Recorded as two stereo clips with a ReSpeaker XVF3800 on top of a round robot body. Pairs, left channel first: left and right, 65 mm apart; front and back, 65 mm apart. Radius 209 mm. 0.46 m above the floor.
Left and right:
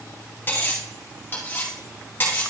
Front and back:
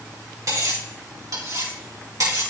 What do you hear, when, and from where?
0.5 s cutlery clinking: 150° left, 3 m